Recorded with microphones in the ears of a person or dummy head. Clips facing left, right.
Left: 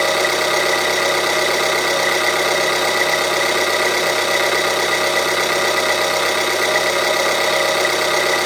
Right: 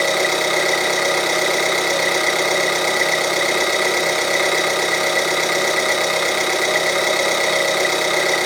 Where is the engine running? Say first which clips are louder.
Left 1 dB; 5° left (ahead or behind), 0.7 m.